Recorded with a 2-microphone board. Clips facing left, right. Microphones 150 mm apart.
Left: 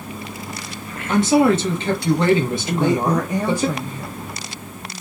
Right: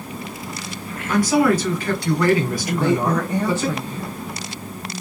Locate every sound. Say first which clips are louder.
1.1 s a man speaking: left 2 dB; 25° left (ahead or behind), 1.0 m
2.7 s a woman speaking: left 1 dB; 15° left (ahead or behind), 0.7 m